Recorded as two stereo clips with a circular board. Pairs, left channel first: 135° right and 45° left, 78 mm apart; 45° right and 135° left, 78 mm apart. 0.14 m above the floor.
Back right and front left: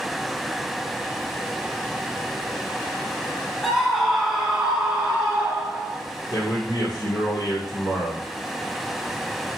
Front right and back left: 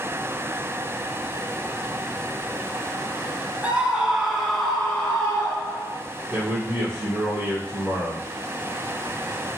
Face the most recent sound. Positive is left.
turn(degrees=-150)